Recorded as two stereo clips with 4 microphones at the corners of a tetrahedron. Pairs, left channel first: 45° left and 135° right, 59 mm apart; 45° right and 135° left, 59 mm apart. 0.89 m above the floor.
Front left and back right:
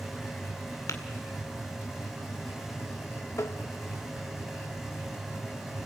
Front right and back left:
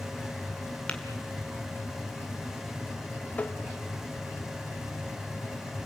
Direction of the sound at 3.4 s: 15° left.